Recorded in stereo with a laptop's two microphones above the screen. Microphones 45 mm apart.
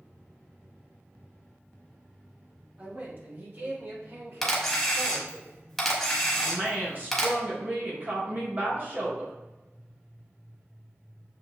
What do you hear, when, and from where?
2.8 s a man speaking: 35° right (ahead or behind), 2.0 m; by 5.4 s 60° right (ahead or behind), 3.5 m
4.4 s a camera shutter: 10° left (ahead or behind), 0.9 m
6.3 s a woman speaking: 45° right (ahead or behind), 0.9 m